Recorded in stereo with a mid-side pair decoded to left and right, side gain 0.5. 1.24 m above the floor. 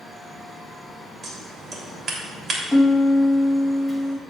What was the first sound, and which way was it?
A fan, 15° right.